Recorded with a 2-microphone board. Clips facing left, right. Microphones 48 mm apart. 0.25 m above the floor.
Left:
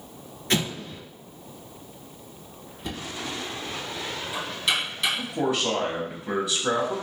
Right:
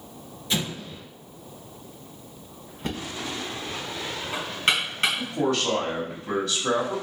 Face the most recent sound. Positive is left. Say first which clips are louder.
# right 1 dB
turn(degrees=10)  # may be behind; listen again after turning